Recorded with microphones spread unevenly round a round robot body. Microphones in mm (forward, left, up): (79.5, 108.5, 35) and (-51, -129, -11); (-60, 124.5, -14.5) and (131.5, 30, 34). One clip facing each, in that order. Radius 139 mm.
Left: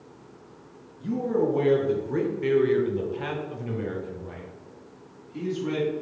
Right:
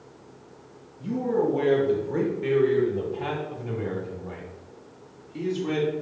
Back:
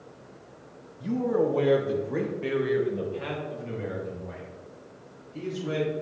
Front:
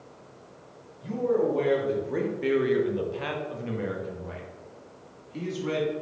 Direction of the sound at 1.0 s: 140° left.